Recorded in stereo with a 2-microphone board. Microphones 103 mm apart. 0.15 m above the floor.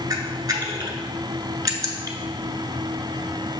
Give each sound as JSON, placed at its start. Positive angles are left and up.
{"t": 0.1, "sound": "a camera shutter", "side_deg": -40, "distance_m": 0.7}